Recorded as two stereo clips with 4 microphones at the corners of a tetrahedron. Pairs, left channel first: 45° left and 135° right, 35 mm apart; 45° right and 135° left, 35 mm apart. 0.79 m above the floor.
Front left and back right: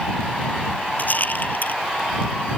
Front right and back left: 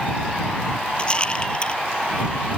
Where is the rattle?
15° left.